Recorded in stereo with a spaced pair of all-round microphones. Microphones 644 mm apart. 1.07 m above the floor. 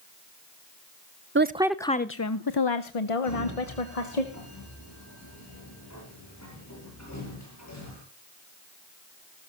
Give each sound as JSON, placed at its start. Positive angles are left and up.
{"t": 1.4, "sound": "a woman speaking", "side_deg": -20, "distance_m": 0.6}
{"t": 3.2, "sound": "a sliding door", "side_deg": 25, "distance_m": 9.0}